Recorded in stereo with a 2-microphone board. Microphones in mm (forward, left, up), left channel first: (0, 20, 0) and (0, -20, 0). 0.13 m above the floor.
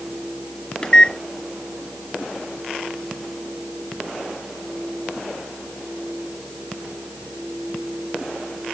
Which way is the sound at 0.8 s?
20° left (ahead or behind).